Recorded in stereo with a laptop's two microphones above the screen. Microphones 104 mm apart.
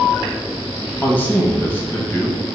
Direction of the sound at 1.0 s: 15° left (ahead or behind).